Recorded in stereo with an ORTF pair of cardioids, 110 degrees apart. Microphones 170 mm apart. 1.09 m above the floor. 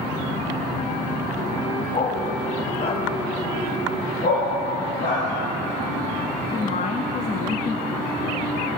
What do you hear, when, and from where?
1.9 s a dog barking: 40° left, 3 m
4.2 s a dog barking: 55° left, 9 m
6.5 s a woman speaking: 45° left, 1.5 m